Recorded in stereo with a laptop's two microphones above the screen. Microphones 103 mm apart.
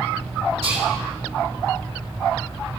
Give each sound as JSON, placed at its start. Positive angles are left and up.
{"t": 0.6, "sound": "whispering", "side_deg": -60, "distance_m": 3.5}